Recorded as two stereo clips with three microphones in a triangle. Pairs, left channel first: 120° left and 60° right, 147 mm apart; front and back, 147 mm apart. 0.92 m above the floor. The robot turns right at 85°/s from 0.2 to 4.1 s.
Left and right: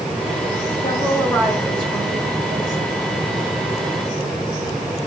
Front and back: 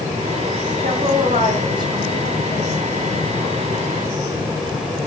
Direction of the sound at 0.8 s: 160° left.